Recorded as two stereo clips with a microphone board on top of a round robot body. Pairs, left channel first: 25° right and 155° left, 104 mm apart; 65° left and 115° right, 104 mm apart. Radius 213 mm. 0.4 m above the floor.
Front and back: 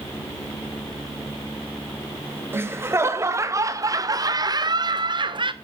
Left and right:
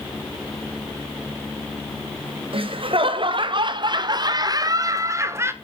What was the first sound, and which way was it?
Laughter, 135° right.